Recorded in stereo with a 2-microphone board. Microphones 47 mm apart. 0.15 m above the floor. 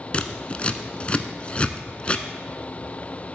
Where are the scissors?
30° left (ahead or behind), 0.6 m.